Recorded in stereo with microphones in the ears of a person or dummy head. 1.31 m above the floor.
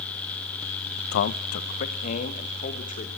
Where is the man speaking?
65° left (ahead or behind), 0.7 m; by 3.1 s 40° left (ahead or behind), 3 m.